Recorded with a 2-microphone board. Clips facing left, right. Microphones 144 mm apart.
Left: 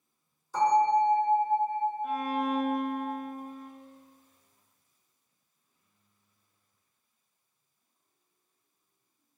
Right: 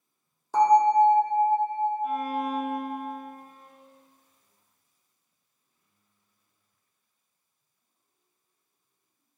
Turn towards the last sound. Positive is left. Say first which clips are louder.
# right 1 dB
turn(degrees=-5)  # may be behind; listen again after turning